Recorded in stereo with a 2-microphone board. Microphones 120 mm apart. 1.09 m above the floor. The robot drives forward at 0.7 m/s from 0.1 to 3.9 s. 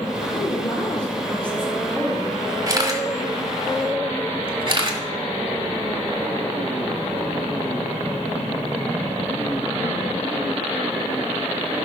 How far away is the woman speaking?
About 4.5 m.